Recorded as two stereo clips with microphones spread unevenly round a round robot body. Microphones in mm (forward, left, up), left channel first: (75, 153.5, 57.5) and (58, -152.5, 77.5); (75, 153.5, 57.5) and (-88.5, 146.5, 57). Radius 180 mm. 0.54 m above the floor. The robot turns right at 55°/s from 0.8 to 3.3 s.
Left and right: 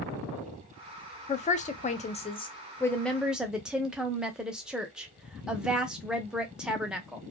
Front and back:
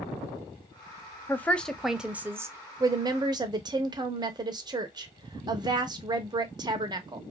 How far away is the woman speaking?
About 0.6 m.